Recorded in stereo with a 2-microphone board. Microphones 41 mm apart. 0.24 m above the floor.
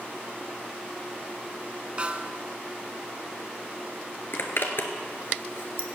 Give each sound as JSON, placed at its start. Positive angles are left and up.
{"t": 2.0, "sound": "a snare drum", "side_deg": -30, "distance_m": 0.5}
{"t": 4.3, "sound": "a zipper", "side_deg": 65, "distance_m": 1.4}